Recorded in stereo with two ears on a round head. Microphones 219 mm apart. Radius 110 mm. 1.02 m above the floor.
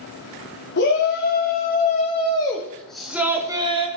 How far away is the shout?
About 3 m.